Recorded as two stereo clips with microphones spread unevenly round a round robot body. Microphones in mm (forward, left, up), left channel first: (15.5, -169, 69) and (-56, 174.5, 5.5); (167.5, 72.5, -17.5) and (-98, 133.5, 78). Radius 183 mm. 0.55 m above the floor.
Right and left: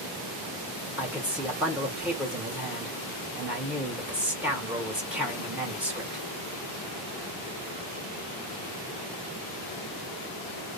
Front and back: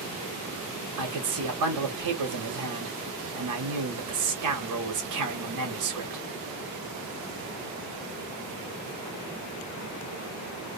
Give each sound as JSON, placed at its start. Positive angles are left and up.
{"t": 1.0, "sound": "a man speaking", "azimuth_deg": 175, "distance_m": 1.2}